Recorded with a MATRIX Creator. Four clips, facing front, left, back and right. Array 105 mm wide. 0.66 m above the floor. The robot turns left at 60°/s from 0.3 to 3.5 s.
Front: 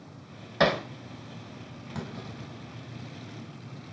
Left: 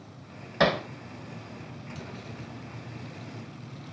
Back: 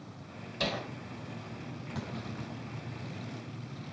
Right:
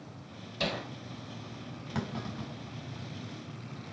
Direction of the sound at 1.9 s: 75° right.